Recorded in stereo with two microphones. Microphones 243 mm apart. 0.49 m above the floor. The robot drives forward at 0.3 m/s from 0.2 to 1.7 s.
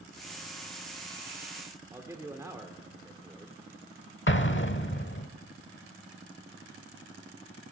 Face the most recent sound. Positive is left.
turn(degrees=50)  # may be behind; listen again after turning